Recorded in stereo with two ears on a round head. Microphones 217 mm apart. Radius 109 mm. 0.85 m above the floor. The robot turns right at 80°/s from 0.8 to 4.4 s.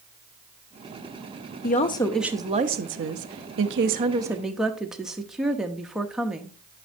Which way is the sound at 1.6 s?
135° left.